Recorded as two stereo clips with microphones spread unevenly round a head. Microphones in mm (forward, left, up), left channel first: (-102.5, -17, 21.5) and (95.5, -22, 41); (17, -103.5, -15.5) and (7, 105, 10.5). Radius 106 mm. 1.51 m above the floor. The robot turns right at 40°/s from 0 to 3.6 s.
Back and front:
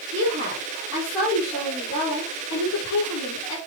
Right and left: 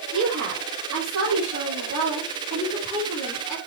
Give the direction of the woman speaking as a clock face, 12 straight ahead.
11 o'clock.